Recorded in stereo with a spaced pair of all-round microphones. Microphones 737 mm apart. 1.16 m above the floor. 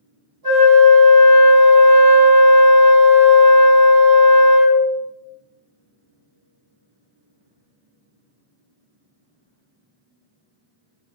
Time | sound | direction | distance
0.4 | a flute | 25° right (ahead or behind) | 1.9 m